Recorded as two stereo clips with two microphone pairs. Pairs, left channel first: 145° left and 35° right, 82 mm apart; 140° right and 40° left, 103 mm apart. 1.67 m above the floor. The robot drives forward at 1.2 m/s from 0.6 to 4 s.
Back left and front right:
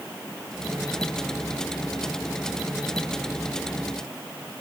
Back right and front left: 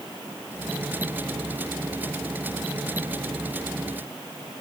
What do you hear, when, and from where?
Only background noise.